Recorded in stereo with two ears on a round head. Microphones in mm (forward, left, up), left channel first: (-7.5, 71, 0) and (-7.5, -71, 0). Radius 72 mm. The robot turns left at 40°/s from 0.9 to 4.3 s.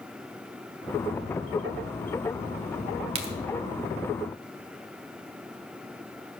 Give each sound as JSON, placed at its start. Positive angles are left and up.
{"t": 3.1, "sound": "a crack", "side_deg": -40, "distance_m": 1.8}